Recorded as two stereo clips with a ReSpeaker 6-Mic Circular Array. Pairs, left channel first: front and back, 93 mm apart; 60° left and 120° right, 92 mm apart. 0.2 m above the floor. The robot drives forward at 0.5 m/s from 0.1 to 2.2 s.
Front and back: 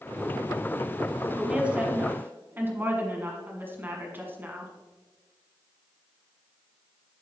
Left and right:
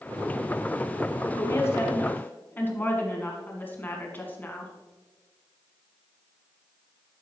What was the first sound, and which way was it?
A woman speaking, 100° left.